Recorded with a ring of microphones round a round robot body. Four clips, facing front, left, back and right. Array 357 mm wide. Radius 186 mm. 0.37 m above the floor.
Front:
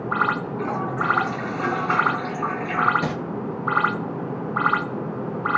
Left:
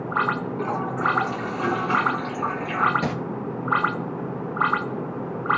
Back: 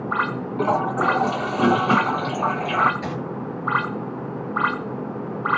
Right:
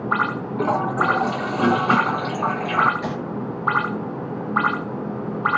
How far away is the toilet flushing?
About 0.6 m.